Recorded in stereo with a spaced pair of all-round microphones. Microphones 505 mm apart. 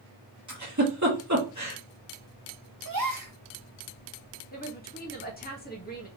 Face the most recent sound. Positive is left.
turn(degrees=20)  # may be behind; listen again after turning